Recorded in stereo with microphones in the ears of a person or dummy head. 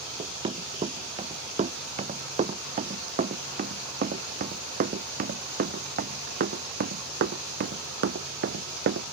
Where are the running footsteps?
30° right (ahead or behind); by 9.0 s 60° right (ahead or behind).